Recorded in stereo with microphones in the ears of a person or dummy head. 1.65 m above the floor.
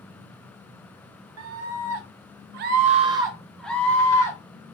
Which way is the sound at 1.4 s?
80° right.